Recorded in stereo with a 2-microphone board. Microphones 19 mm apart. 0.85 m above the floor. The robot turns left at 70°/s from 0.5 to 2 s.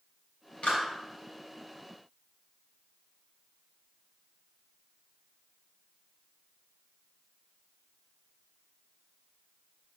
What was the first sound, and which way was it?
A clap, 75° left (ahead or behind).